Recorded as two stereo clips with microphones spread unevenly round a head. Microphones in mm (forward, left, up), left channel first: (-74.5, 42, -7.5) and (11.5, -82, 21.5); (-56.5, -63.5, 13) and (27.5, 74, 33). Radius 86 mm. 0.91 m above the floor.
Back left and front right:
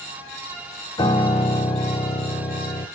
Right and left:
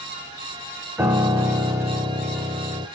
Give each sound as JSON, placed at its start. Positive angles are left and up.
{"t": 1.0, "sound": "a piano", "azimuth_deg": 80, "distance_m": 0.7}